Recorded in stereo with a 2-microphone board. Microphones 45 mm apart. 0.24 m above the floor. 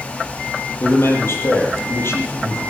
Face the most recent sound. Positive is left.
turn(degrees=60)  # may be behind; listen again after turning